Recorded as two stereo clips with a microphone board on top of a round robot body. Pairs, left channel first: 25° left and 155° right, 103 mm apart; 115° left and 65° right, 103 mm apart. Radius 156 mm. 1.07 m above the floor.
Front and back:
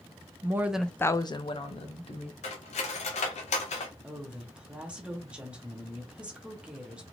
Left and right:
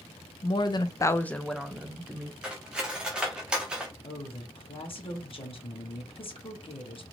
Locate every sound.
0.4 s a woman speaking: 145° left, 0.6 m; by 2.3 s 10° left, 1.1 m
2.4 s cutlery clinking: 15° left, 0.5 m
4.0 s a woman speaking: 125° left, 0.9 m